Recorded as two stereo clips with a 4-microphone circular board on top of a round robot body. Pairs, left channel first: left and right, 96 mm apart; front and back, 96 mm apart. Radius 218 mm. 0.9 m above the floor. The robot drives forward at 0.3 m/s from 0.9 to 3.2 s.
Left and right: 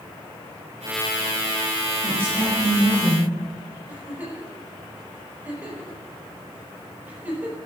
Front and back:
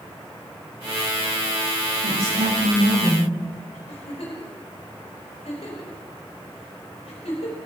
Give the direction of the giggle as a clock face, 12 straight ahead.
1 o'clock.